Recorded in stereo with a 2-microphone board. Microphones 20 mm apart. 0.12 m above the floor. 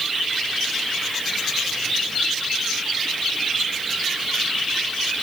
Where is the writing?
No writing in this recording.